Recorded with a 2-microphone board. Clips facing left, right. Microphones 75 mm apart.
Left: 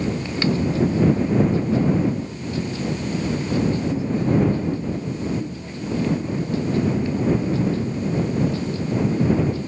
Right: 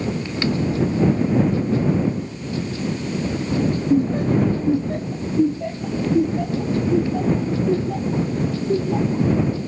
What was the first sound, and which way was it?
Laughter, 50° right (ahead or behind).